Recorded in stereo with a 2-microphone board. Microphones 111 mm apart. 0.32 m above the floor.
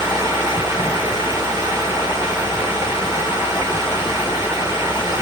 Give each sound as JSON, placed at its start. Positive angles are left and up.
{"t": 0.0, "sound": "running water", "side_deg": -25, "distance_m": 2.5}